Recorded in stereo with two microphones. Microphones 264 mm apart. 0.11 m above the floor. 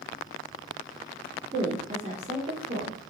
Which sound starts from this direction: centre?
A woman speaking, at 1.5 s.